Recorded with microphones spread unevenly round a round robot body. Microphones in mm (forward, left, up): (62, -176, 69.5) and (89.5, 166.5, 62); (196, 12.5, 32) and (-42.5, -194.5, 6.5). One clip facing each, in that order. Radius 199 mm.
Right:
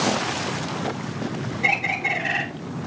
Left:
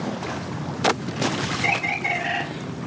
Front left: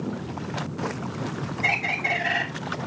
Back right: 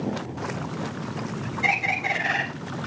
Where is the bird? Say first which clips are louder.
Left 1 dB, back right 1 dB; 170° left, 8 m.